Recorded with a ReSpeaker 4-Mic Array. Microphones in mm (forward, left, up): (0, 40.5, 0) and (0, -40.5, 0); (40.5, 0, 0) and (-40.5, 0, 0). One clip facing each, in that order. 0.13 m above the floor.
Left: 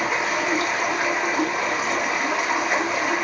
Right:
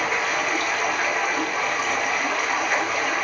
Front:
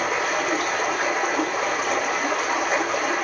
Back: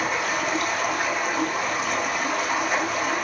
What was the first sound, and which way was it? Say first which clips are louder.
Running water: left 1 dB, front 2 dB; 20° left.